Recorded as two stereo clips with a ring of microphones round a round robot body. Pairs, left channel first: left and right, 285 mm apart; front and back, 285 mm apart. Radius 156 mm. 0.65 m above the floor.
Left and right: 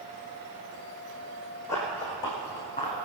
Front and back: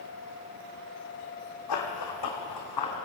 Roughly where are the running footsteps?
Ahead.